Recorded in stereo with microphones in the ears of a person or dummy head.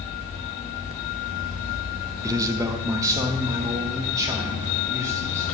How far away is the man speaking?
About 0.6 m.